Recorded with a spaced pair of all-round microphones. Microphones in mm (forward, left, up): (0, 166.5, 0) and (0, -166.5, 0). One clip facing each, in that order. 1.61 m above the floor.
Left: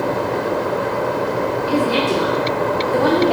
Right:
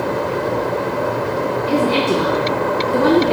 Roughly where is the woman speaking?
Right.